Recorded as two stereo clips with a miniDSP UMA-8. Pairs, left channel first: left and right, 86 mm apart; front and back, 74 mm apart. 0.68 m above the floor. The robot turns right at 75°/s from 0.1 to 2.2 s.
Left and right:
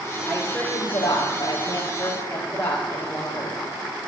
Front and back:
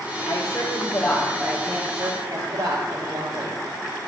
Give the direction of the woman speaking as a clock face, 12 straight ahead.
12 o'clock.